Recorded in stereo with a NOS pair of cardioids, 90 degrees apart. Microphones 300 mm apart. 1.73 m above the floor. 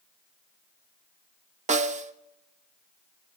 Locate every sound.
1.7 s a snare drum: 25° right, 0.9 m